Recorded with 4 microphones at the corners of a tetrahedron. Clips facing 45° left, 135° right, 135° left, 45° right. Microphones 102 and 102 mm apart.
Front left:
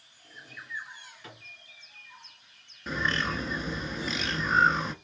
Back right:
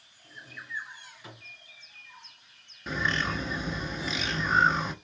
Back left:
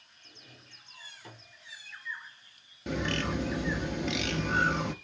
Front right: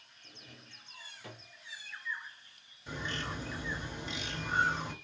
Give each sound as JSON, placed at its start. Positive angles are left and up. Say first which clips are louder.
{"t": 0.2, "sound": "a drawer", "louder": "back right 1 dB, front right 1 dB", "azimuth_deg": -50, "distance_m": 1.8}
{"t": 2.9, "sound": "a bird", "louder": "even, back left 8 dB", "azimuth_deg": 135, "distance_m": 0.7}